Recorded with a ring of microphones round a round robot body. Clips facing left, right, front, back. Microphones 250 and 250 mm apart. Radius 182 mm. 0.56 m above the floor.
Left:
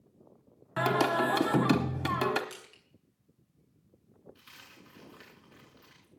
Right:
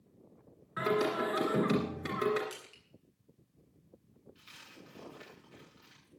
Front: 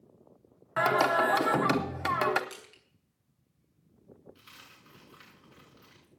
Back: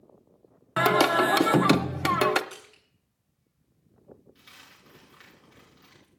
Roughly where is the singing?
Behind left.